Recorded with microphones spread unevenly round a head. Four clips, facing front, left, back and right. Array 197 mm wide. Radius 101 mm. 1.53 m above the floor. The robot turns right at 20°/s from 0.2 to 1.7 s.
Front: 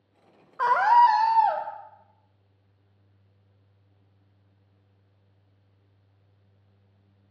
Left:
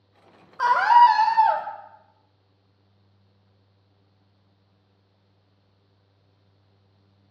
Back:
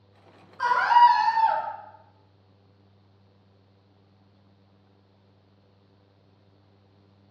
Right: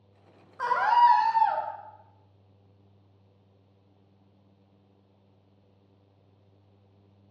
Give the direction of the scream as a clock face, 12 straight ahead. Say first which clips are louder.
Left 6 dB, even; 11 o'clock.